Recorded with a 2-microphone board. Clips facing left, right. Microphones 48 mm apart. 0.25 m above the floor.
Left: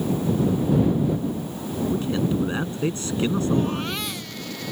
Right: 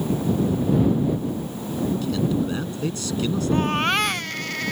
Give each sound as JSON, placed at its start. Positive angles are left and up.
{"t": 1.9, "sound": "a man speaking", "side_deg": 30}
{"t": 3.5, "sound": "a baby crying", "side_deg": -55}